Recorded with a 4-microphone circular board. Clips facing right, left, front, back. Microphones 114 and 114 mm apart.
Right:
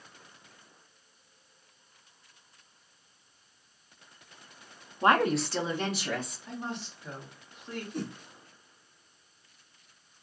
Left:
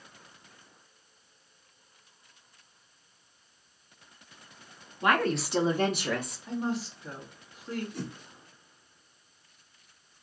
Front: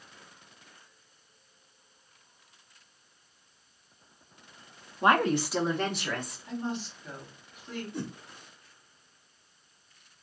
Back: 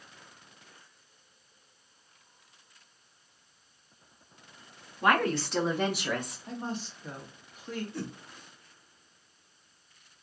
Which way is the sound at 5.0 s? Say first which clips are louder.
Right 2 dB, front 2 dB; 50° right.